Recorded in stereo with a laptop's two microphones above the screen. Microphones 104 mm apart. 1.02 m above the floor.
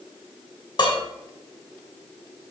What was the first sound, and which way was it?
Dishes clattering, 55° left (ahead or behind).